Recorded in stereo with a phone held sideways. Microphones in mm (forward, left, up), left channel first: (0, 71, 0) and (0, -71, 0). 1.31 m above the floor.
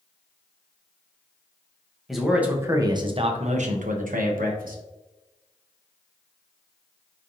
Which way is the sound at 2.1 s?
Centre (ahead or behind).